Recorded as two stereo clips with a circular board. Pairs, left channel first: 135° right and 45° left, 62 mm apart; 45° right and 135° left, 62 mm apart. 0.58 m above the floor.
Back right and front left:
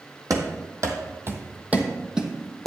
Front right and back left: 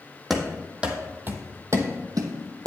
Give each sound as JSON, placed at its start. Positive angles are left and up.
{"t": 0.3, "sound": "running footsteps", "azimuth_deg": 45, "distance_m": 1.2}